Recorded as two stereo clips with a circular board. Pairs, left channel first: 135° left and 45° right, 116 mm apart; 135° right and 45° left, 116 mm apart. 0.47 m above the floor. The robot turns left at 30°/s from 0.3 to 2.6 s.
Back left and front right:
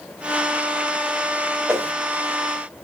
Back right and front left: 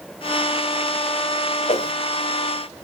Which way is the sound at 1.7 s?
110° right.